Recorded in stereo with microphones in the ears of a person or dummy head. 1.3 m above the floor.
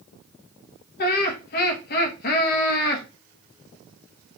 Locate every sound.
1.0 s laughter: 55° left (ahead or behind), 1.3 m